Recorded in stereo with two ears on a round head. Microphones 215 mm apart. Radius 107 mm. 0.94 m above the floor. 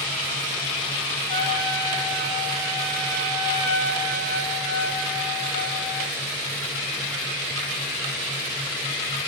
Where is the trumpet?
75° left (ahead or behind), 1.8 m.